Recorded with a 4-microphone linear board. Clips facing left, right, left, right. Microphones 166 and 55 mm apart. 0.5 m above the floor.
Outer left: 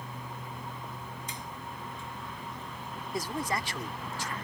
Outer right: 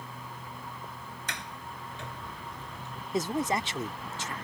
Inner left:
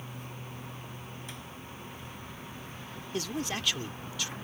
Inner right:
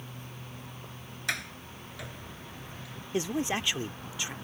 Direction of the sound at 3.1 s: 20° right (ahead or behind).